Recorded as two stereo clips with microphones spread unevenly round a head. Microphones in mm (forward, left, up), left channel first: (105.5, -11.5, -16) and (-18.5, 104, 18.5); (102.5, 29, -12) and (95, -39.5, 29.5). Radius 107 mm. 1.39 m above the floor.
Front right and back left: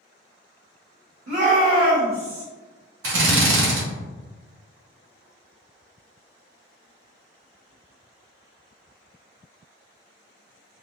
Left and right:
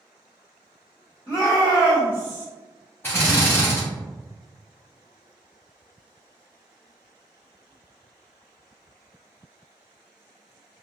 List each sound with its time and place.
1.3 s a shout: 150° left, 1.8 m; by 2.5 s 160° left, 1.2 m
3.0 s a drill: 155° left, 1.0 m